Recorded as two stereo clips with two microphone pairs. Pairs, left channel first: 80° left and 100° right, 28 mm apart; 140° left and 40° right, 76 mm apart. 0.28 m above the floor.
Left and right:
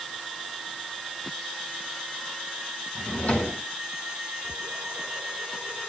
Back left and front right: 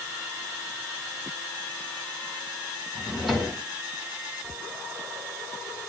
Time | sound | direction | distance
3.0 | a drawer | 50° left | 3 m